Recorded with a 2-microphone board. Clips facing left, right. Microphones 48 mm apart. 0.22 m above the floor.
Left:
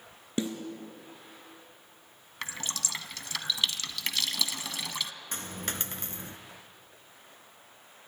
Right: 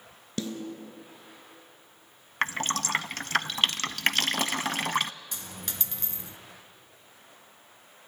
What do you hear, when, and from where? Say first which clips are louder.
0.4 s a snare drum: left 2 dB; 20° left (ahead or behind), 3 m
2.4 s dripping: right 10 dB; 50° right (ahead or behind), 0.6 m
5.3 s a dropped coin: left 4 dB; 40° left (ahead or behind), 1.3 m